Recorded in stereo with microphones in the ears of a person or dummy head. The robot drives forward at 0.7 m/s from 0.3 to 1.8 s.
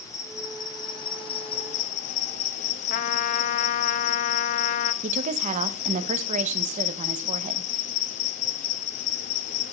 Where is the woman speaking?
40° right (ahead or behind), 0.8 m.